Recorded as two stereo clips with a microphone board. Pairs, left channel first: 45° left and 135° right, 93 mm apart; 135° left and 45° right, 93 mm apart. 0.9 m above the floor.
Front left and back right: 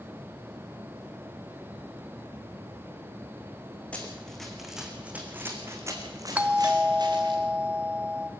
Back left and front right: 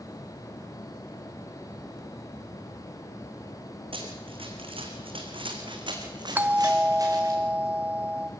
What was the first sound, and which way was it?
Running footsteps, 30° right.